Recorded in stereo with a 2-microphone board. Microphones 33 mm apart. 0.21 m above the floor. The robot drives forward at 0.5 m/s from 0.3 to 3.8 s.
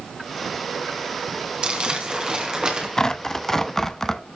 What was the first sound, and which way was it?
Crumpling, 25° right (ahead or behind).